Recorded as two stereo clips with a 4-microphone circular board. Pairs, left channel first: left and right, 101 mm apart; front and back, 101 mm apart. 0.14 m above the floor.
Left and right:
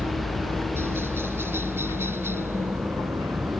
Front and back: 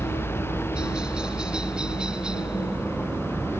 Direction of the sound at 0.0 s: 110° right.